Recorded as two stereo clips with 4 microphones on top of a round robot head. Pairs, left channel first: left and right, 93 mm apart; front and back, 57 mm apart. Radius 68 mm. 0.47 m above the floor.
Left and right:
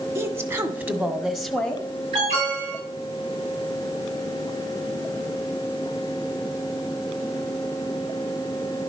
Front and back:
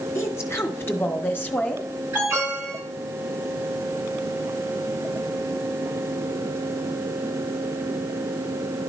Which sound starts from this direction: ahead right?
A woman speaking, at 0.1 s.